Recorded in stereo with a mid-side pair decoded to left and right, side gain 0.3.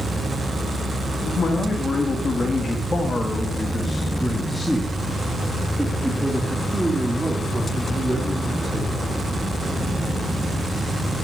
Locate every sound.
1.2 s a man speaking: 65° left, 2 m; by 9.2 s 30° right, 3.5 m